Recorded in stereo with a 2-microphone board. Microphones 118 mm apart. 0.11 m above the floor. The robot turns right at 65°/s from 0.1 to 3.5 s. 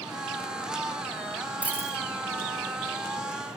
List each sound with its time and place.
1.6 s a dropped coin: 10° right (ahead or behind), 1.1 m; by 2.0 s 30° right (ahead or behind), 1.1 m